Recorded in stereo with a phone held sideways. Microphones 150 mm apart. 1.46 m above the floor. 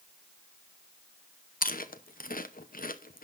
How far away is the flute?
I don't hear a flute.